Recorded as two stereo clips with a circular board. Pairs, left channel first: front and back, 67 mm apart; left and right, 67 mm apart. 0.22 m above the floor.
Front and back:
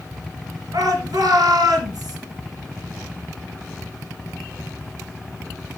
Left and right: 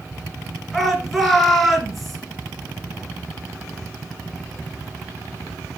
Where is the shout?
Straight behind, 3 m.